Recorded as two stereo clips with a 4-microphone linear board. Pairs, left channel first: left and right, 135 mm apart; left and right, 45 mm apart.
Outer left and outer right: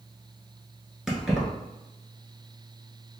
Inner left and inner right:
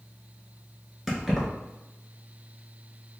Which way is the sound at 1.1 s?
5° right (ahead or behind).